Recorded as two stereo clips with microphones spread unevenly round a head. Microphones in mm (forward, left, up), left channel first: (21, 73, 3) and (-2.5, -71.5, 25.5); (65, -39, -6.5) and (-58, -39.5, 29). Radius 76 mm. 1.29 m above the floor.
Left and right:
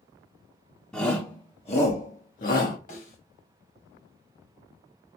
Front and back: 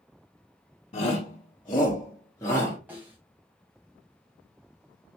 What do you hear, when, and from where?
0.9 s a shout: 5° left, 1.0 m; by 2.8 s 70° left, 1.7 m
2.9 s a snare drum: 115° left, 1.7 m